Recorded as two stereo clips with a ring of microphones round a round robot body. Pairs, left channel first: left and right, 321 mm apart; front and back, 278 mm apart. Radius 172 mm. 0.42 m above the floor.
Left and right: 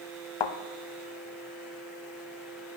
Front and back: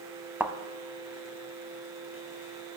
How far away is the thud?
About 0.7 m.